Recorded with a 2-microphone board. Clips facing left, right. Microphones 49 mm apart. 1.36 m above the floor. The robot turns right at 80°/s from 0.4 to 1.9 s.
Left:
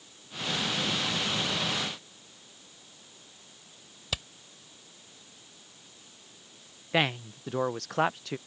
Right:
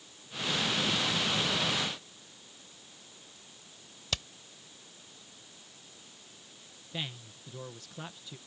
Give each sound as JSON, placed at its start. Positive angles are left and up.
{"t": 4.1, "sound": "hammering", "side_deg": 10}
{"t": 6.9, "sound": "a man speaking", "side_deg": 80}